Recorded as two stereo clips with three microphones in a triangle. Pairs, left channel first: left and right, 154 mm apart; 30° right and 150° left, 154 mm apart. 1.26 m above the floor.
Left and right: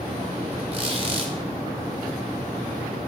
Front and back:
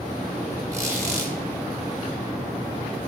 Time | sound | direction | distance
0.7 | a squeak | 140° right | 2.5 m